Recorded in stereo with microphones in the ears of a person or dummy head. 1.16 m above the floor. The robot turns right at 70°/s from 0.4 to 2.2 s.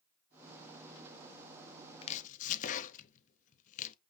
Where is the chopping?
30° left (ahead or behind), 0.6 m; by 4.0 s 40° left (ahead or behind), 0.6 m.